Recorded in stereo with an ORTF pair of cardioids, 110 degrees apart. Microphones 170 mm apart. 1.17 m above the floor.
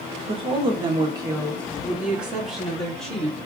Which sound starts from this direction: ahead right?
A woman speaking, at 0.3 s.